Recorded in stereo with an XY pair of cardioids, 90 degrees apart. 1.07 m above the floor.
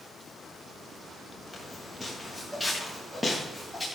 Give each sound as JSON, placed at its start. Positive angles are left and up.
{"t": 1.5, "sound": "footsteps", "azimuth_deg": 5, "distance_m": 7.0}